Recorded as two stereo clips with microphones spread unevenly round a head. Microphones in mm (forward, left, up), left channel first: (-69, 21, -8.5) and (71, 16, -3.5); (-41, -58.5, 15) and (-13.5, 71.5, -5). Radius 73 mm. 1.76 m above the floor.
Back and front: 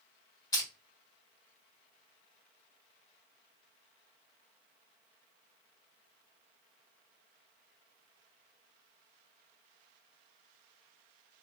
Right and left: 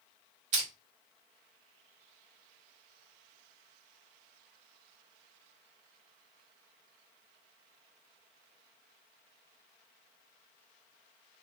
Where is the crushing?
110° left, 1.7 m.